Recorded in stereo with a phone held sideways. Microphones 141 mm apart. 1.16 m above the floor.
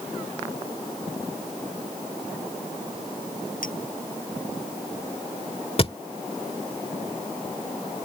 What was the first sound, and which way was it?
A clink, 85° left.